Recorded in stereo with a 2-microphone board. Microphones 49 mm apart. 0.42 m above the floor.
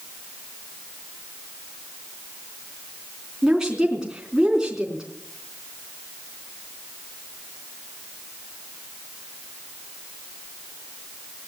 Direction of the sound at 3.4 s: 15° right (ahead or behind).